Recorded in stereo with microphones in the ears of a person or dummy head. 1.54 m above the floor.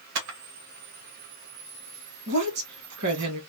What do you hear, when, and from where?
0.1 s a camera shutter: 60° right (ahead or behind), 1.2 m
2.3 s a woman speaking: 55° right (ahead or behind), 1.9 m